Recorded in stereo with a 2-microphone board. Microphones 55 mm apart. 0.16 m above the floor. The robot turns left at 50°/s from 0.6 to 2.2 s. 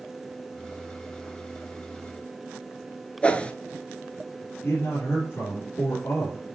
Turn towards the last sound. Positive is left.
turn(degrees=50)  # may be behind; listen again after turning